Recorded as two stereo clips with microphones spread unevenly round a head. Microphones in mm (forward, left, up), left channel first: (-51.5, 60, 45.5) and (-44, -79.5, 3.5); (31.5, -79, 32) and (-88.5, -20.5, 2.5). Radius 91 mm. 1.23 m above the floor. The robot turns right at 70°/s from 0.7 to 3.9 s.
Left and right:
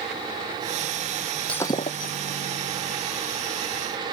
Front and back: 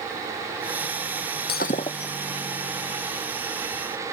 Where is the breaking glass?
10° left; by 2.2 s 60° left.